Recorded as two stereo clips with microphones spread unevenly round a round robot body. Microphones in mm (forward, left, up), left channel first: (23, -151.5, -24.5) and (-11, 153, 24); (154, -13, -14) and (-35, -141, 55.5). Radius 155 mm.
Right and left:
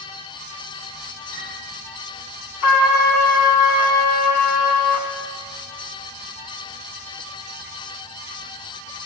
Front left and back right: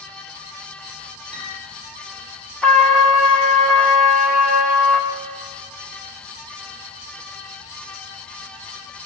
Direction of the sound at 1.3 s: 85° right.